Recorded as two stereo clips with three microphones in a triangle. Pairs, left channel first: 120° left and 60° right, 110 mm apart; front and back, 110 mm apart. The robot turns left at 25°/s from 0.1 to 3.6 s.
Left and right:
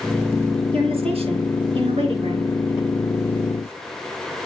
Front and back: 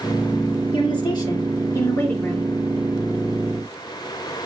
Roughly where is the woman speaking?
Ahead right.